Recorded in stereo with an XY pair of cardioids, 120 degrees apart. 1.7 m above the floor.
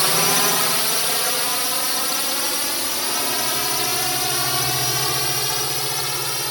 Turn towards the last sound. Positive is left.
turn(degrees=5)